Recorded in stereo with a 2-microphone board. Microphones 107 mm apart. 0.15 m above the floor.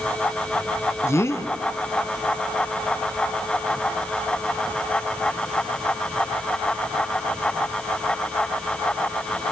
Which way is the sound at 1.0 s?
25° left (ahead or behind).